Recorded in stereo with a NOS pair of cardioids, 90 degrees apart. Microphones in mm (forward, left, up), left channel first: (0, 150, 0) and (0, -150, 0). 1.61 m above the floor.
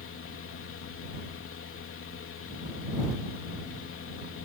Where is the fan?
50° left.